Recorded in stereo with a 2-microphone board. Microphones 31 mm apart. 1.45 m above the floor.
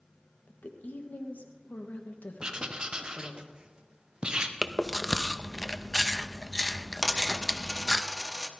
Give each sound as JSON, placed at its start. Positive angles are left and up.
{"t": 0.5, "sound": "a woman speaking", "side_deg": 80, "distance_m": 1.7}
{"t": 2.4, "sound": "writing", "side_deg": -35, "distance_m": 1.0}
{"t": 4.6, "sound": "chewing", "side_deg": 5, "distance_m": 0.6}
{"t": 7.0, "sound": "a dropped coin", "side_deg": 0, "distance_m": 1.0}